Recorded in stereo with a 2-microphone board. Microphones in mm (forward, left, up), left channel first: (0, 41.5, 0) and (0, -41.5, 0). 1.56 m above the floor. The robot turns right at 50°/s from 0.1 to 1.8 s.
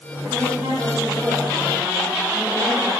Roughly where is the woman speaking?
Right.